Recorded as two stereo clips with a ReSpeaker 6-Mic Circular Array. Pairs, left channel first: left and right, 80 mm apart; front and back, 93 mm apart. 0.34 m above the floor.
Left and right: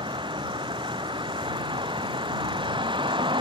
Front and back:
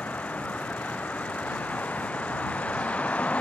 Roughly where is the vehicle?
Right.